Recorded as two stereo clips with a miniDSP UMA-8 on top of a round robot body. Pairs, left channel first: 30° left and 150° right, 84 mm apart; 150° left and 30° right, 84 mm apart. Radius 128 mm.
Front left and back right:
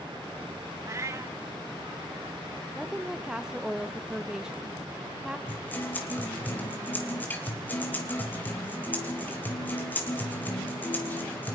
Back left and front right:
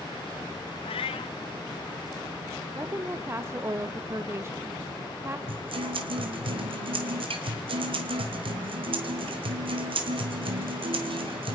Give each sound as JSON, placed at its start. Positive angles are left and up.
{"t": 0.8, "sound": "a cat meowing", "azimuth_deg": 150, "distance_m": 0.7}
{"t": 2.8, "sound": "a woman speaking", "azimuth_deg": -70, "distance_m": 1.2}
{"t": 5.5, "sound": "a guitar", "azimuth_deg": -40, "distance_m": 2.5}